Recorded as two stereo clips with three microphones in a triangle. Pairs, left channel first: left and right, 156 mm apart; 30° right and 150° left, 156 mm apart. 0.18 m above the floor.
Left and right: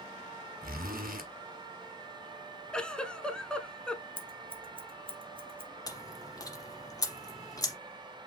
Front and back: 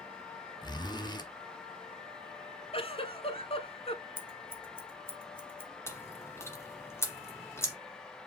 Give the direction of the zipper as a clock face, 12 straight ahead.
3 o'clock.